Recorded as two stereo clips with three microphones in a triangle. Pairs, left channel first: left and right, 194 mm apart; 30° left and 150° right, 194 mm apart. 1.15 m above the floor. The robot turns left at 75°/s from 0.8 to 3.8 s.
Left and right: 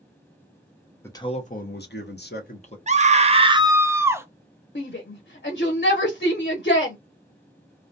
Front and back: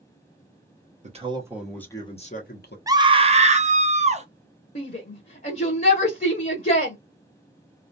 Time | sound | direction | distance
1.0 | a man speaking | 165° left | 0.8 m
2.9 | a scream | 90° right | 0.5 m
4.8 | a shout | 65° left | 0.6 m